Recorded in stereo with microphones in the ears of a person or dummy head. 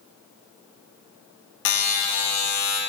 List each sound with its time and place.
1.6 s a buzzer: 65° left (ahead or behind), 0.7 m